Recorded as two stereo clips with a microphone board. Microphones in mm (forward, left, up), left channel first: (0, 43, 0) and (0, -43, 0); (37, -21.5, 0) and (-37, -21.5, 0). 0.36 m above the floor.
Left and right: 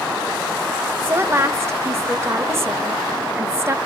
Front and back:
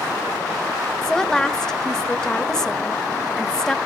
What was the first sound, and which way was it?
A woman speaking, 75° right.